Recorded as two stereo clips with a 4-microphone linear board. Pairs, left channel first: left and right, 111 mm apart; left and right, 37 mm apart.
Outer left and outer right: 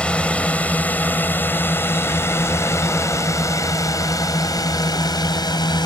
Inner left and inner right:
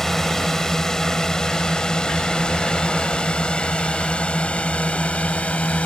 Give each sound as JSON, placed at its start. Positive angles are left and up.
{"t": 0.0, "sound": "a drone", "side_deg": 10}